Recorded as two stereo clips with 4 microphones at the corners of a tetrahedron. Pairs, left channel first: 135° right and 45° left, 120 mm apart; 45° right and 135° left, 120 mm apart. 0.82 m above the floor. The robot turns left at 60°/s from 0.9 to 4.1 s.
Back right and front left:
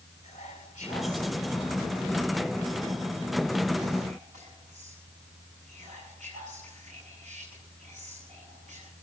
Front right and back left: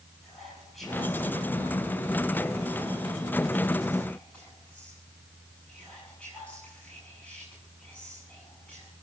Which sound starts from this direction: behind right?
Whispering, at 0.2 s.